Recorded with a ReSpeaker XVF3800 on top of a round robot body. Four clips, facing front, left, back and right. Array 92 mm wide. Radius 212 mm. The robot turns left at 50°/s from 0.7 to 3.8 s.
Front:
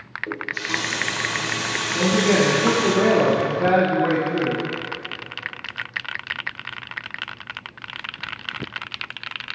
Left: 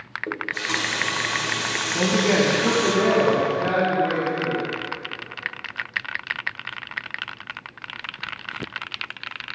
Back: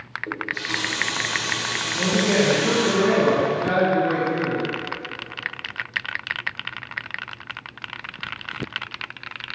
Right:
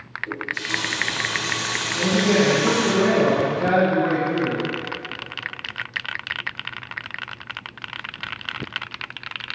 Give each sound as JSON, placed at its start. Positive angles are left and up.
{"t": 0.3, "sound": "a running tap", "azimuth_deg": 80, "distance_m": 2.5}
{"t": 1.9, "sound": "a man speaking", "azimuth_deg": 75, "distance_m": 4.0}